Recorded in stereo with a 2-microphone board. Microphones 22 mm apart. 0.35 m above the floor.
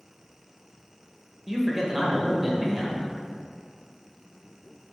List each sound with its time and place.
1.5 s a man speaking: 10° right (ahead or behind), 1.3 m